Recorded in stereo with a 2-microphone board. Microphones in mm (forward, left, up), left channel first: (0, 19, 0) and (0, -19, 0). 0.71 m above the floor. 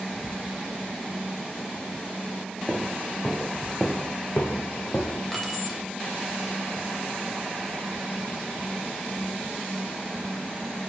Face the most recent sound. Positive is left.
turn(degrees=5)  # may be behind; listen again after turning